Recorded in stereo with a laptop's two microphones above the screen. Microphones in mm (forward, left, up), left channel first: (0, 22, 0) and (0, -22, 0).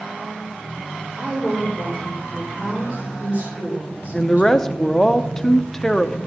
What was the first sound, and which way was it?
A woman speaking, 45° right (ahead or behind).